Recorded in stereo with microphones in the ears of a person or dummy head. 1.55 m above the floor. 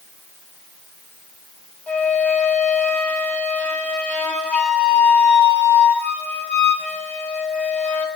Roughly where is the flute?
Centre.